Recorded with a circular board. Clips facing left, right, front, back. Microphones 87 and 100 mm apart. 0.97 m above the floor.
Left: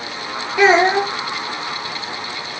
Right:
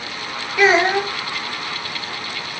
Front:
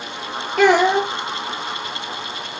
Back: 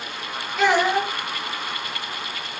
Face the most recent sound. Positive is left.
turn(degrees=25)